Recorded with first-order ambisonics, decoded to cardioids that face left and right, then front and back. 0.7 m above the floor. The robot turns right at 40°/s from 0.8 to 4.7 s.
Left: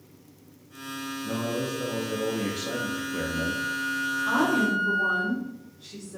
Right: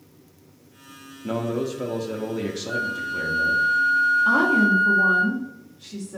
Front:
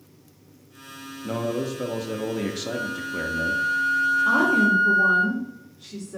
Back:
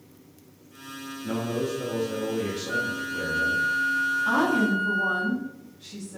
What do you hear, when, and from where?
1.2 s a man speaking: 60° right, 0.5 m; by 3.6 s 35° left, 0.5 m
2.7 s a flute: 135° right, 1.2 m; by 5.2 s 55° right, 1.2 m
4.2 s a woman speaking: 75° right, 1.2 m; by 6.2 s 55° right, 1.2 m